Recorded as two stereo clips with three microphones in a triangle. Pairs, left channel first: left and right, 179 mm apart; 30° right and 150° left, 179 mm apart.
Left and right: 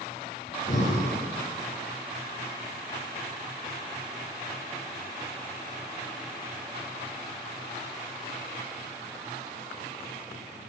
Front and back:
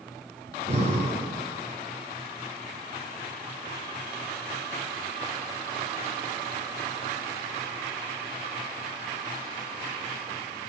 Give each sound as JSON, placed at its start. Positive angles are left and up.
{"t": 0.5, "sound": "breathing", "azimuth_deg": 115, "distance_m": 1.0}